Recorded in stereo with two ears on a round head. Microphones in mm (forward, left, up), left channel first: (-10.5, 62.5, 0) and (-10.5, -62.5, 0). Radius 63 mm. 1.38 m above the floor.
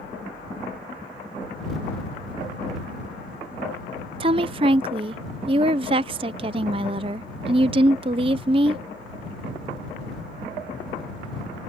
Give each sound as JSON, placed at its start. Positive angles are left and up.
{"t": 4.2, "sound": "a woman speaking", "side_deg": -40}